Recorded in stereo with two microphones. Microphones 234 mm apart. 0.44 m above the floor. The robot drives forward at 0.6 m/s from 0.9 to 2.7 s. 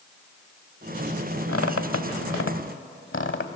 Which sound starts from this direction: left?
A squeak, at 1.5 s.